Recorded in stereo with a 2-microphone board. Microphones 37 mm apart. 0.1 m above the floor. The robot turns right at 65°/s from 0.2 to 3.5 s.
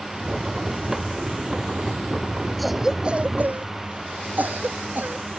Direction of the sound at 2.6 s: 5° left (ahead or behind).